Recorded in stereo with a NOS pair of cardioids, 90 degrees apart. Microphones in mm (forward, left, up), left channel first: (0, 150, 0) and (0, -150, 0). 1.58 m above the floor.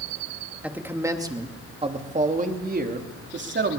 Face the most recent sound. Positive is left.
turn(degrees=-40)